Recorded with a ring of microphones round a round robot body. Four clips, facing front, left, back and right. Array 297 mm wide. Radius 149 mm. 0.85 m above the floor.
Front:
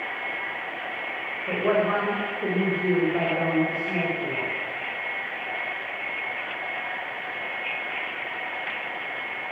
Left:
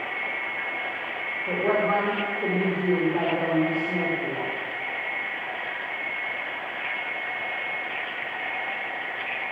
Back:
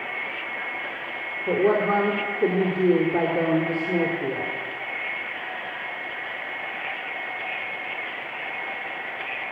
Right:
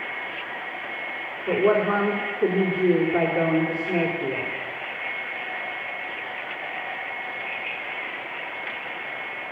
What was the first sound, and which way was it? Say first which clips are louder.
A woman speaking: right 3 dB, back 3 dB; 155° right.